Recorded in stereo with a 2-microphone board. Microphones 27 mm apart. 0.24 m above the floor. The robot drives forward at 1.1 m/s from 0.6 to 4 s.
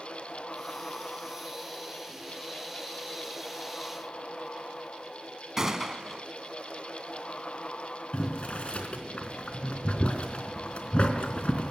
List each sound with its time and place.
5.6 s a gunshot: 20° right (ahead or behind), 2.5 m
8.1 s boiling: 50° left (ahead or behind), 3.5 m